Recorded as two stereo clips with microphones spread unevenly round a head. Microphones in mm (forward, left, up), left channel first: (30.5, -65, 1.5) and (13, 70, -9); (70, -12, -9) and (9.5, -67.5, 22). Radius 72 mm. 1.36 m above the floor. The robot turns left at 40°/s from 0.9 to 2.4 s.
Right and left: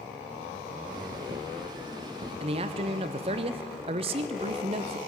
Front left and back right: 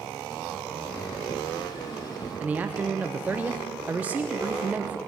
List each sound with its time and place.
2.4 s a man speaking: 135° left, 0.5 m